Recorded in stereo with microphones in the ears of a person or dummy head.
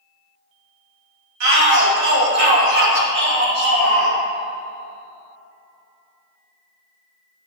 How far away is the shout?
About 1.9 m.